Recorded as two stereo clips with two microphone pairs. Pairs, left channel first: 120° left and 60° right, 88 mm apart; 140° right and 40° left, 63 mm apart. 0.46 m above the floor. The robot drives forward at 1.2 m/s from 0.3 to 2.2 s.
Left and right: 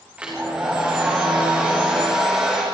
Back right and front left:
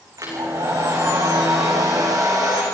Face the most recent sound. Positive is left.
turn(degrees=20)